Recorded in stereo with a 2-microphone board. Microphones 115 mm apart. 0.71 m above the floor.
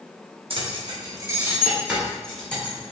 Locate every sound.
0.5 s keys jangling: 55° right (ahead or behind), 0.7 m; by 2.9 s 15° left (ahead or behind), 1.3 m